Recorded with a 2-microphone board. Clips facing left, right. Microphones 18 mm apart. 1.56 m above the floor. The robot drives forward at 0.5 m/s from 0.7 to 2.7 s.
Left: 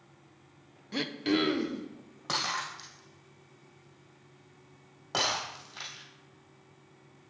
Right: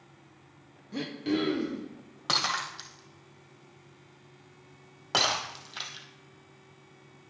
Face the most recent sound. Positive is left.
turn(degrees=-45)  # may be behind; listen again after turning